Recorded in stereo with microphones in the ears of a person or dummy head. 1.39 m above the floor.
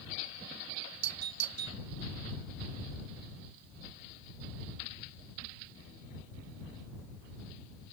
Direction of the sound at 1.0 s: 80° right.